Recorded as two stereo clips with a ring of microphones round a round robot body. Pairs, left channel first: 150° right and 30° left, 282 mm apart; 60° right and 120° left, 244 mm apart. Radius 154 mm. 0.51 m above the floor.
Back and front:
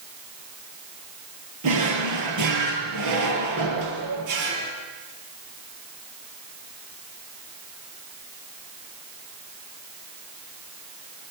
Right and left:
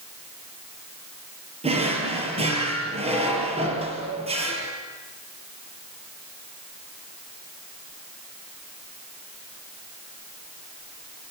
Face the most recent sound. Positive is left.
turn(degrees=55)